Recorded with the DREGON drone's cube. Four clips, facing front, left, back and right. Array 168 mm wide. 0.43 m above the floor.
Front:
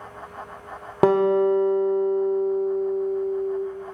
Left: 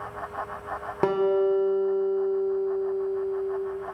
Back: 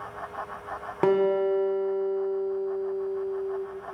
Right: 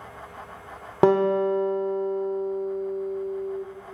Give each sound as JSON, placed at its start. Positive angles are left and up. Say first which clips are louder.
{"t": 1.0, "sound": "a guitar", "louder": "right 3 dB, front 4 dB", "azimuth_deg": -40, "distance_m": 0.6}